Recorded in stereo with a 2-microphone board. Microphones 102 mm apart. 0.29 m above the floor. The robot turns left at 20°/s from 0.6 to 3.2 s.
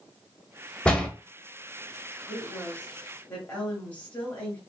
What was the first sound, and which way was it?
A door slam, 10° left (ahead or behind).